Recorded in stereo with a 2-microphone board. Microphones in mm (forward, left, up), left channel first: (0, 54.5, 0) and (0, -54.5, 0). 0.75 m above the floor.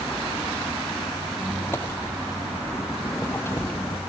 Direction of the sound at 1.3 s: 20° left (ahead or behind).